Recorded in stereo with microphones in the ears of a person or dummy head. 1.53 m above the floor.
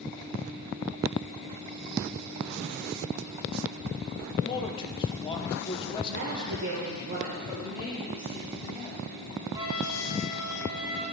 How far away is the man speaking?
About 1.2 m.